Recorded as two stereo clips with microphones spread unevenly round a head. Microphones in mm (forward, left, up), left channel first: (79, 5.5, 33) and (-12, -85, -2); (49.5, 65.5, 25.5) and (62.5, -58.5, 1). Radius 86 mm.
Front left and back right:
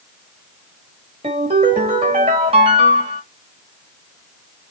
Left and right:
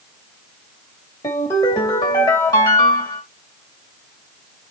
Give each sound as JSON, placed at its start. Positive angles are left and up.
{"t": 1.2, "sound": "a ringtone", "azimuth_deg": 160, "distance_m": 2.5}